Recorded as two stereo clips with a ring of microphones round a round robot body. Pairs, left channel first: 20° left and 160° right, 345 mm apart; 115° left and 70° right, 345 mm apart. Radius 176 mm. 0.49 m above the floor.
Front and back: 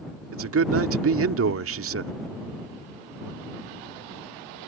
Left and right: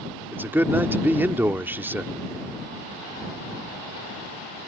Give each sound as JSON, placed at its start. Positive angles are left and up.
{"t": 0.3, "sound": "a man speaking", "azimuth_deg": -150}